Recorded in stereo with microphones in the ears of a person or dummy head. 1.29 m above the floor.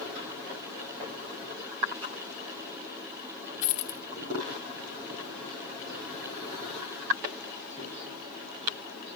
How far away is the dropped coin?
About 1.1 m.